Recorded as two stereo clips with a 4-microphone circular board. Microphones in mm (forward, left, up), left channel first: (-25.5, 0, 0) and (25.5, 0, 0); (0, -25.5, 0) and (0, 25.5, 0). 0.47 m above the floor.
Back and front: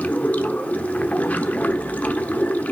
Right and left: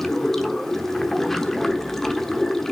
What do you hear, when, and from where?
0.0 s running water: 165° right, 0.9 m